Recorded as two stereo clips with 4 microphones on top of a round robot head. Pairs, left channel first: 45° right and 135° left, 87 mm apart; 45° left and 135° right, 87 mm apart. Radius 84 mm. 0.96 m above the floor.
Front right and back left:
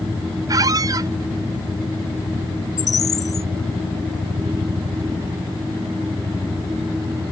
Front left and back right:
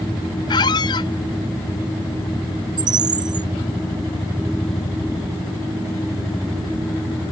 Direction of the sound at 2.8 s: 95° right.